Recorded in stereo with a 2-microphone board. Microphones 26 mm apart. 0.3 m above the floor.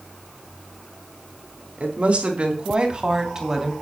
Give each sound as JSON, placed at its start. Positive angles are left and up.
{"t": 1.8, "sound": "a woman speaking", "side_deg": -55, "distance_m": 3.0}